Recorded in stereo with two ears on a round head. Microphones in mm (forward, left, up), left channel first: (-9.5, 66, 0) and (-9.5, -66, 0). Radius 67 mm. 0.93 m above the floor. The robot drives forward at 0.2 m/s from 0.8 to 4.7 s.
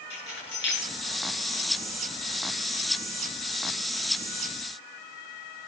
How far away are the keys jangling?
About 8.5 m.